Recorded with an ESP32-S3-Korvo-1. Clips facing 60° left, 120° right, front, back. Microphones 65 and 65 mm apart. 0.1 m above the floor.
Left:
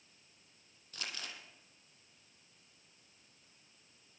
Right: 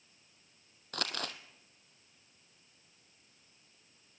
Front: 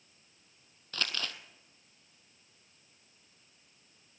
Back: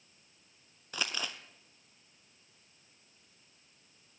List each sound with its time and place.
0.9 s crumpling: 105° right, 1.2 m